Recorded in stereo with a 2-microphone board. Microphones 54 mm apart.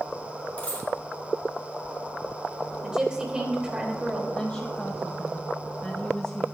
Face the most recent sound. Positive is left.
turn(degrees=20)  # may be behind; listen again after turning